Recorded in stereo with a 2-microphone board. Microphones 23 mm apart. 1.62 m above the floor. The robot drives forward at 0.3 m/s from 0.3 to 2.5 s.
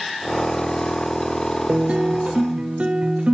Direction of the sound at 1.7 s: 80° right.